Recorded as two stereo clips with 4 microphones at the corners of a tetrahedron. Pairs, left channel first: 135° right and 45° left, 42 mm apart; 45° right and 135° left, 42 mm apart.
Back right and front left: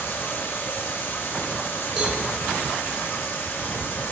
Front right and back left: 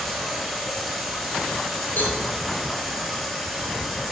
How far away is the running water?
About 4.5 m.